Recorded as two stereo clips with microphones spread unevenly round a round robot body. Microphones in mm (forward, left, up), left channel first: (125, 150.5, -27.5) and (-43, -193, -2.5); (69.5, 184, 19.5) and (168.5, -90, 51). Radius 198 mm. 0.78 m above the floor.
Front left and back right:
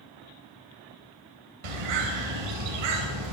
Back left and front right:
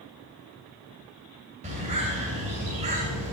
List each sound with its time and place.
1.6 s a bird: 145° right, 2.5 m